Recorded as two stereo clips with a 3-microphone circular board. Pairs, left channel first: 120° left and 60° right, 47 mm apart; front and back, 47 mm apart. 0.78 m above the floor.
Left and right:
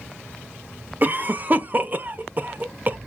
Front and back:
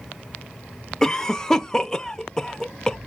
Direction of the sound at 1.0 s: 70° right.